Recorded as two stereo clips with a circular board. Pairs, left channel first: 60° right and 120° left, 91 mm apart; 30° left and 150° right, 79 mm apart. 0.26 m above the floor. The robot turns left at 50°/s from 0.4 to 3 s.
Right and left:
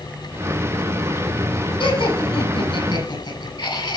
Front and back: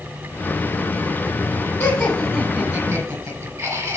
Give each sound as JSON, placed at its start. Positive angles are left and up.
{"t": 1.8, "sound": "laughter", "azimuth_deg": -30, "distance_m": 7.5}